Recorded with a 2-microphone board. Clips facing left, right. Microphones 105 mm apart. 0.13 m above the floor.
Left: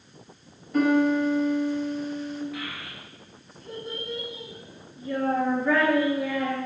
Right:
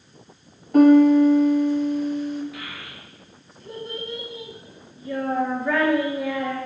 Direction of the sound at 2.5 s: 5° right (ahead or behind).